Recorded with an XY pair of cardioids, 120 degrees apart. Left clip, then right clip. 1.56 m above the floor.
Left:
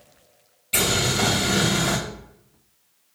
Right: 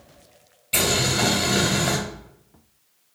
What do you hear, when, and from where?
0.7 s boiling: 10° right, 1.9 m